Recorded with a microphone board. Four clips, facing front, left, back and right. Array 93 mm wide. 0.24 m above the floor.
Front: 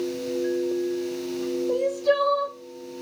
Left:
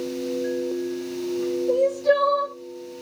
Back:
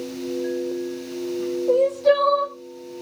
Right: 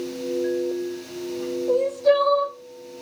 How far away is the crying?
About 6 m.